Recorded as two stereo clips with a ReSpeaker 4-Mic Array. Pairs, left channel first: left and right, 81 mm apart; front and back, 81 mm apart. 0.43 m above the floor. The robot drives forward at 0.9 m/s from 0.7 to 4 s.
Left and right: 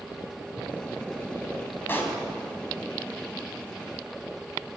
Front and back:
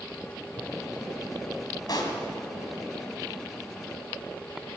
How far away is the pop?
About 2.5 m.